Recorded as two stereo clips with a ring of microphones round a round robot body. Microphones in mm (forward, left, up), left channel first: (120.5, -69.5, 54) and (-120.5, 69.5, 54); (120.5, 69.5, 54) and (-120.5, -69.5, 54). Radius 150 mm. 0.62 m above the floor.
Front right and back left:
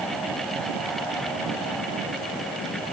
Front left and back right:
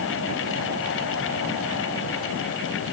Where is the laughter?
No laughter in this recording.